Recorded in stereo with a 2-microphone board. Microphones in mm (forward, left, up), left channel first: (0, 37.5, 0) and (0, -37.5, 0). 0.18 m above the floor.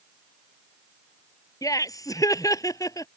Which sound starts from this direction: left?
Laughter, at 1.6 s.